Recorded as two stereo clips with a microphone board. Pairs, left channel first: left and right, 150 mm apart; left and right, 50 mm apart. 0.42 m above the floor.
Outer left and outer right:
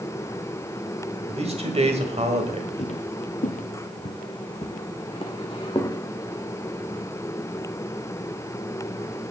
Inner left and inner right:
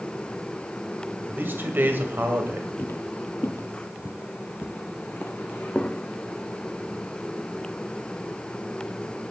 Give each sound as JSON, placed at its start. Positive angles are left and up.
{"t": 1.3, "sound": "a man speaking", "side_deg": -45, "distance_m": 1.8}
{"t": 2.8, "sound": "footsteps", "side_deg": 45, "distance_m": 0.8}